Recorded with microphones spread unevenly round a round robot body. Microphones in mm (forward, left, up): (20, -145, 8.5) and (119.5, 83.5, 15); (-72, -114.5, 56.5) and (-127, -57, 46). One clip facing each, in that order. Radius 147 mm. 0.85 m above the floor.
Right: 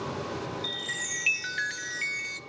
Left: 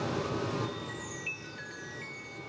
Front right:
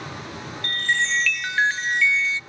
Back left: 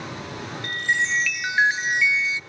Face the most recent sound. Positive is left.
turn(degrees=-150)